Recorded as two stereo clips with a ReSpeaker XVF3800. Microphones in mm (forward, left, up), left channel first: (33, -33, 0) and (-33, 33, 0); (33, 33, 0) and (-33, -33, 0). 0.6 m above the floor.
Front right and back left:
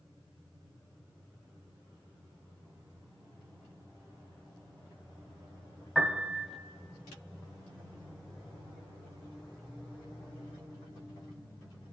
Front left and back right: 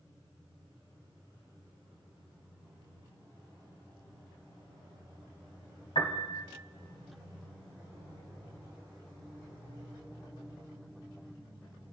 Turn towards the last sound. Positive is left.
turn(degrees=45)